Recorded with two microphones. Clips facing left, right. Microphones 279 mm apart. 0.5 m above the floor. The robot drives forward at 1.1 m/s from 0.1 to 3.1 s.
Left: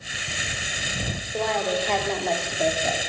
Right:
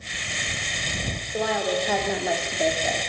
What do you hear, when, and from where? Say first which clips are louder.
1.3 s a woman speaking: right 1 dB; 5° right (ahead or behind), 1.7 m